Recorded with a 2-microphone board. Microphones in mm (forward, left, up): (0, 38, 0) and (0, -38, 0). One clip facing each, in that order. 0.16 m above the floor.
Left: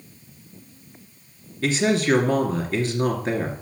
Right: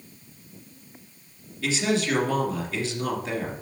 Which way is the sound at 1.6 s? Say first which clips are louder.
Left 4 dB; 45° left (ahead or behind).